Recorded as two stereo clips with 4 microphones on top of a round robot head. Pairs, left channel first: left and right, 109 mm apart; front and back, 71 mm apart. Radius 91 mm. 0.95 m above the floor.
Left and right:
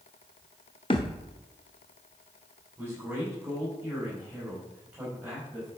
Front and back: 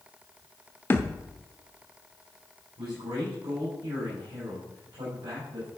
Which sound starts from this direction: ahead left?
A thud, at 0.9 s.